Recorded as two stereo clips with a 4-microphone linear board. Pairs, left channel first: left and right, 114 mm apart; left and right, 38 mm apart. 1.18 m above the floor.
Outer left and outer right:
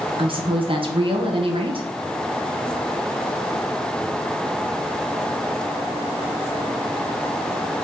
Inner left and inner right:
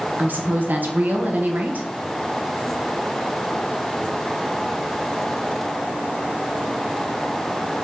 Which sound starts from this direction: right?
A woman speaking, at 0.2 s.